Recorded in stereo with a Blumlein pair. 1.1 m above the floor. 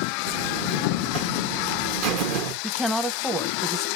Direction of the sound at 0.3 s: 40° right.